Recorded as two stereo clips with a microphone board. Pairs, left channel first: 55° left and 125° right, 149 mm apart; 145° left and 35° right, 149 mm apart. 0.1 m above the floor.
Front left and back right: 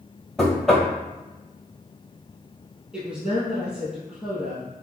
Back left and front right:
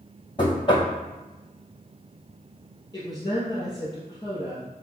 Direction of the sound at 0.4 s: 145° left.